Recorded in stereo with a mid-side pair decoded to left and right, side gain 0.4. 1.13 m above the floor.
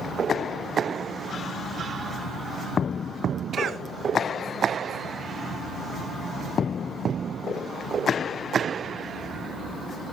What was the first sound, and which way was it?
A cough, 60° right.